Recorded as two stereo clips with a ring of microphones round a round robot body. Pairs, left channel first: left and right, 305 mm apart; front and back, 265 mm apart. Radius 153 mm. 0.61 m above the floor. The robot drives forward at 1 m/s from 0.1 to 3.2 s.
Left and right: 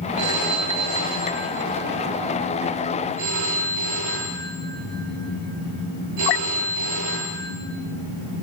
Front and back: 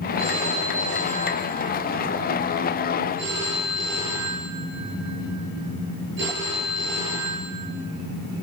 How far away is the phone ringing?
About 8.5 m.